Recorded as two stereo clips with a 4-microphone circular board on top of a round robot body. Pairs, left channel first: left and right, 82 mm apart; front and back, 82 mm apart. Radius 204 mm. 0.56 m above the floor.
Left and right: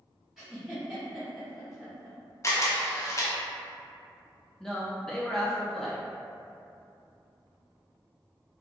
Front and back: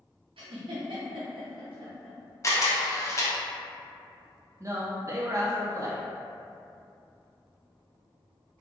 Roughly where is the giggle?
Behind.